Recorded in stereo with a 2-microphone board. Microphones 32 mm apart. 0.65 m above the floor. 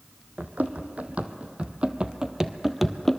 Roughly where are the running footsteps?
Right.